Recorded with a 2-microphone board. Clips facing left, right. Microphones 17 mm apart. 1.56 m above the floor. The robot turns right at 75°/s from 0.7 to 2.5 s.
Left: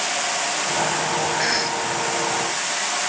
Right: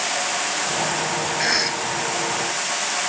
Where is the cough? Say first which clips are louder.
Right 1 dB; 175° left, 0.6 m; by 1.8 s 150° right, 0.6 m.